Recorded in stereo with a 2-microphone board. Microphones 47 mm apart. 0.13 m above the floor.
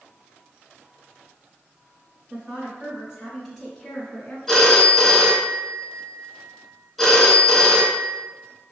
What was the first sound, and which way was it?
A woman speaking, 10° right (ahead or behind).